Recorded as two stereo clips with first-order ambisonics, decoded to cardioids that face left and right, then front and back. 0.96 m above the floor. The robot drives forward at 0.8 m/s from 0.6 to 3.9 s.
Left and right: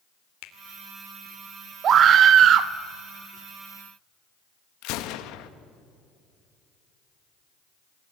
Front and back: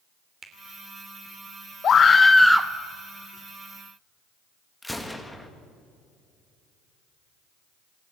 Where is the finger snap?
105° left, 3 m.